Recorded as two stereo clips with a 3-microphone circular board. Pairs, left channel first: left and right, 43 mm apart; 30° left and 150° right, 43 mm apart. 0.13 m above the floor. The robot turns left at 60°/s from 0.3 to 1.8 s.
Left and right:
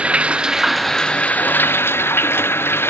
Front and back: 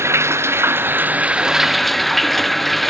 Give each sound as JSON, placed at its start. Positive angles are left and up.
{"t": 0.0, "sound": "running water", "azimuth_deg": -150}